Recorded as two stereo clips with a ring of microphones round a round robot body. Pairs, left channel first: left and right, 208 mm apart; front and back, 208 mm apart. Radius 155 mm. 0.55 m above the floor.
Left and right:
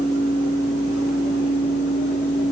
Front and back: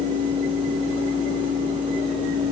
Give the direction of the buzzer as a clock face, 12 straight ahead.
No buzzer in this recording.